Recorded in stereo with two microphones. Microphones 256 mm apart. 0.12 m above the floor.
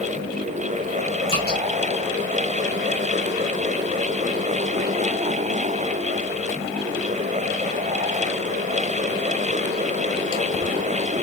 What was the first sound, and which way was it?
Dripping, 25° left (ahead or behind).